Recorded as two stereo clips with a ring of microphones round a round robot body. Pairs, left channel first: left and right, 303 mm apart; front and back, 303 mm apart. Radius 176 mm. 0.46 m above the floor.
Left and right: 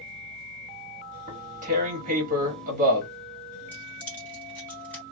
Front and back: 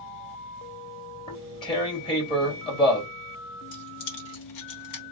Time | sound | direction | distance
1.3 | tearing paper | 60° right | 1.5 m
3.7 | keys jangling | 5° left | 1.2 m